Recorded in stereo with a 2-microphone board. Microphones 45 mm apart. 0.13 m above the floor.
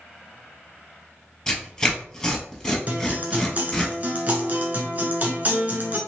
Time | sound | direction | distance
1.5 | tearing paper | 15° left (ahead or behind) | 1.4 m
2.9 | a guitar | 35° right (ahead or behind) | 1.0 m